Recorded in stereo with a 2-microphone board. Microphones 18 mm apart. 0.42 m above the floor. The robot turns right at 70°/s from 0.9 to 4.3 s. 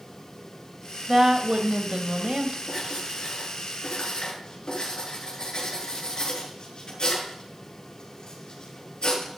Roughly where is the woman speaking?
Behind right.